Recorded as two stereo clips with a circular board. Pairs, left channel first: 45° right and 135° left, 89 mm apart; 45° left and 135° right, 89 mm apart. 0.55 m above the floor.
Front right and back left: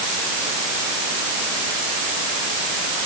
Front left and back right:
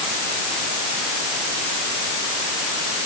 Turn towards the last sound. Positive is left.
No sound to turn to.